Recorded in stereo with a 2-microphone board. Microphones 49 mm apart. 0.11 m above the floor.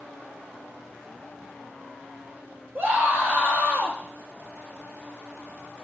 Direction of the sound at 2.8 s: 45° right (ahead or behind).